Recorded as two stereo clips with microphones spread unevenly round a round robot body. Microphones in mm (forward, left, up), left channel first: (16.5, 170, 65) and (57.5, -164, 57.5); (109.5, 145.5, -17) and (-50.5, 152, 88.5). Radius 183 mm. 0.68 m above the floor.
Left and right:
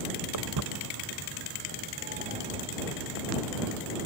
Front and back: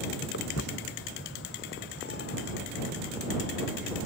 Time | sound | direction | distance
0.3 | footsteps | 50° right | ?